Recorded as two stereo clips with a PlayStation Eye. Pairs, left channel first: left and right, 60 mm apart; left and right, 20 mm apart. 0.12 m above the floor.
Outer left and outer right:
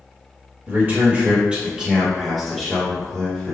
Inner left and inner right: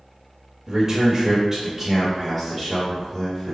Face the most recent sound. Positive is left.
turn(degrees=25)  # may be behind; listen again after turning